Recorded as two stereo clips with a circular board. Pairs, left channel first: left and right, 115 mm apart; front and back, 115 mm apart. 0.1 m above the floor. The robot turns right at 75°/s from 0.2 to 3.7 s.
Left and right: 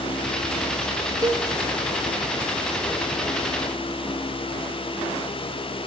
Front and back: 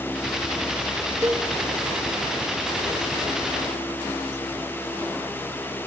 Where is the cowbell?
125° right, 1.2 m; by 1.5 s 110° right, 1.2 m.